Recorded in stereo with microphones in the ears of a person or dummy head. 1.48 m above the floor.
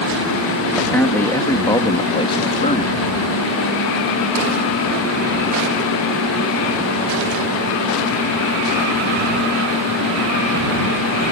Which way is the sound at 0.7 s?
10° left (ahead or behind).